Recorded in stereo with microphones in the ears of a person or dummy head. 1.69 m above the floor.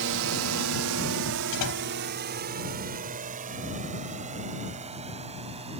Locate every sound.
0.0 s a drone: 60° right (ahead or behind); by 5.8 s 30° right (ahead or behind)
1.5 s a door slam: 65° left (ahead or behind)